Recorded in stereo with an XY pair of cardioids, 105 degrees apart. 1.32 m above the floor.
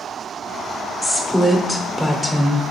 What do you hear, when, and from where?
1.0 s a woman speaking: straight ahead, 0.7 m